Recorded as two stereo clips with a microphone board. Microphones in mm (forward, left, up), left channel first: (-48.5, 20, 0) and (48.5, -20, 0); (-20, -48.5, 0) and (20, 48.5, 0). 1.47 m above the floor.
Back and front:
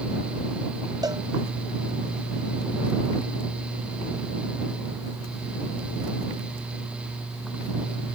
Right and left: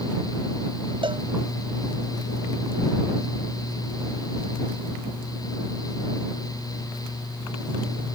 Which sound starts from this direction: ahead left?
A cowbell, at 1.0 s.